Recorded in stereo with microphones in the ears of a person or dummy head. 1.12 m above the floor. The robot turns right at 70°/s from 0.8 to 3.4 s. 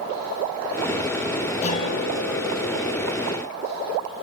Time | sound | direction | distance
1.6 | a guitar | 40° left | 1.9 m